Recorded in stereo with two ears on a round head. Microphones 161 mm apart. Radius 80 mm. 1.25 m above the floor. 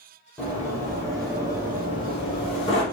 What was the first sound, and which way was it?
Running footsteps, 10° left (ahead or behind).